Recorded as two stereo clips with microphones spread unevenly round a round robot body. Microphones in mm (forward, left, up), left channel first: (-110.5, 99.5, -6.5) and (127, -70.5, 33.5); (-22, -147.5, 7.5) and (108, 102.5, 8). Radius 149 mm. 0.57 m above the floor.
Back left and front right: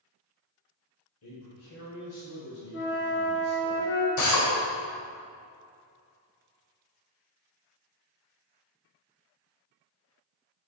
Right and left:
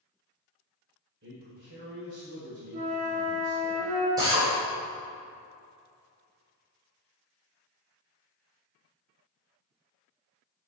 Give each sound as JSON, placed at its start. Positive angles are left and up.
{"t": 1.2, "sound": "a man speaking", "azimuth_deg": 115, "distance_m": 2.0}
{"t": 2.7, "sound": "a flute", "azimuth_deg": 90, "distance_m": 1.9}
{"t": 4.2, "sound": "a drill", "azimuth_deg": 140, "distance_m": 2.0}